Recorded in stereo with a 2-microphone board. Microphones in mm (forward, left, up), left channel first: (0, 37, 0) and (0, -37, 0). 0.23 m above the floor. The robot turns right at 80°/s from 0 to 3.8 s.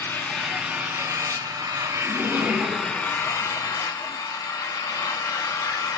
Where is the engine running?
145° left, 0.8 m; by 6.0 s 90° left, 0.8 m.